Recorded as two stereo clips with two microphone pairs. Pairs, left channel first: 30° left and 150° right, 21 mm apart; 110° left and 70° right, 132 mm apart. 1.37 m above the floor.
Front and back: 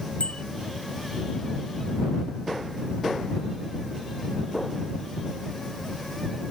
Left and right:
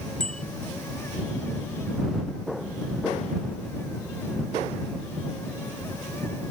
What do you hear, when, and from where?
0.2 s a bicycle bell: 25° left